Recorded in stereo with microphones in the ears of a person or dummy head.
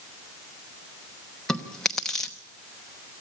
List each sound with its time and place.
1.5 s chewing: 5° left (ahead or behind), 1.0 m